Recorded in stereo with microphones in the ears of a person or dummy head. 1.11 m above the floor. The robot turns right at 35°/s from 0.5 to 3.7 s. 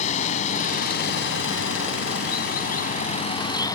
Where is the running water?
45° left; by 3.8 s 160° left.